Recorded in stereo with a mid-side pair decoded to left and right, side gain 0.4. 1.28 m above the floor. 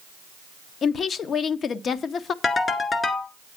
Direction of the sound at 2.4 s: 45° left.